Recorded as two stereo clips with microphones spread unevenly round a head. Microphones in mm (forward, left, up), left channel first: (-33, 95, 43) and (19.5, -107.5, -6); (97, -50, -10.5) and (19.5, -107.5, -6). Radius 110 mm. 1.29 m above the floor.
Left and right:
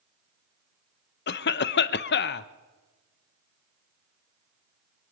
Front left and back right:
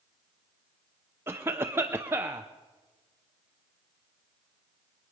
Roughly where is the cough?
Behind left.